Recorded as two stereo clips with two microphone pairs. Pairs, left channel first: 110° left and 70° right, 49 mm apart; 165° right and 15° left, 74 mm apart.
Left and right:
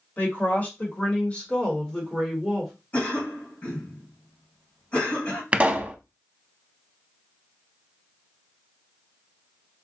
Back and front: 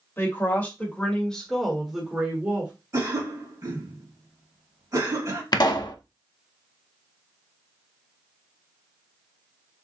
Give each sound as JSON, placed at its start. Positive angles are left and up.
{"t": 0.2, "sound": "a woman speaking", "azimuth_deg": 150, "distance_m": 1.7}
{"t": 2.9, "sound": "a cough", "azimuth_deg": 55, "distance_m": 2.5}
{"t": 5.5, "sound": "a pop", "azimuth_deg": -135, "distance_m": 0.5}